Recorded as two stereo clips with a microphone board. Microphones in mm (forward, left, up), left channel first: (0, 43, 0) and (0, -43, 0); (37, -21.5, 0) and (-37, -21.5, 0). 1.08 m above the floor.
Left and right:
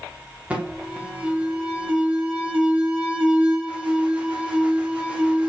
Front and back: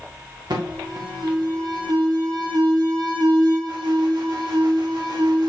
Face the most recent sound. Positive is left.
turn(degrees=-165)